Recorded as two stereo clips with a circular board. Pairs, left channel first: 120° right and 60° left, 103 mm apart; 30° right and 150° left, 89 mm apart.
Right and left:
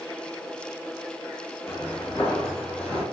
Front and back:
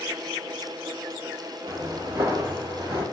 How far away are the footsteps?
About 1.5 m.